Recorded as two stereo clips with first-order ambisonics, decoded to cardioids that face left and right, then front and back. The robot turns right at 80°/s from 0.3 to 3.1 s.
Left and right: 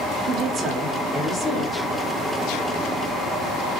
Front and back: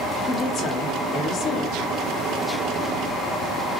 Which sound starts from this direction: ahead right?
A woman speaking, at 0.3 s.